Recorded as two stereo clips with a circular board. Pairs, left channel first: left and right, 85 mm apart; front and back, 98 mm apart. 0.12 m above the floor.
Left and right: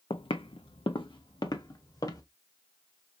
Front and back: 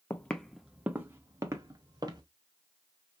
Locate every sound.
0.1 s footsteps: 70° left, 0.7 m; by 2.2 s 135° left, 1.6 m